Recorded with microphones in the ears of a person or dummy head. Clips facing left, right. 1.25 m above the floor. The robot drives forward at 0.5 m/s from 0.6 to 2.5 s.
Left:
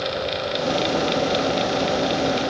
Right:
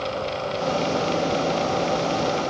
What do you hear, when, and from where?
Only background noise.